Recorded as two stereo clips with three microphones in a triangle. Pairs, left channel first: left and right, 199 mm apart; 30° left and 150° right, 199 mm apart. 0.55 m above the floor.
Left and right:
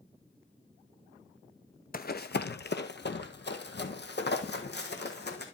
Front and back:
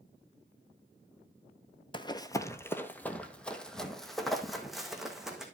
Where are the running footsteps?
85° left, 0.7 m; by 5.5 s 120° left, 2.5 m.